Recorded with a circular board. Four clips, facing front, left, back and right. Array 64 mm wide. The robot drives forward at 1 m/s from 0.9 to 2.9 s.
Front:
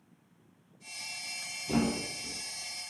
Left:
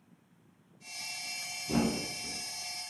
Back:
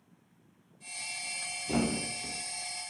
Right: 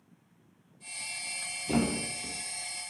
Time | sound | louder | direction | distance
1.7 | a thud | right 1 dB, front 1 dB | 90° right | 0.9 m